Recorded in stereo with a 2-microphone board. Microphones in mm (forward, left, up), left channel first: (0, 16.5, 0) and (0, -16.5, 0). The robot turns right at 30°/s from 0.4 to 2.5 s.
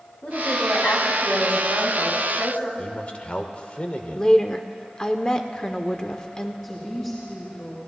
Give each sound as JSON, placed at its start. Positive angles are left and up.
{"t": 0.2, "sound": "a woman speaking", "azimuth_deg": 55, "distance_m": 3.5}
{"t": 2.8, "sound": "a man speaking", "side_deg": 40, "distance_m": 1.2}
{"t": 4.1, "sound": "a woman speaking", "side_deg": 20, "distance_m": 0.8}
{"t": 6.6, "sound": "a woman speaking", "side_deg": 25, "distance_m": 4.0}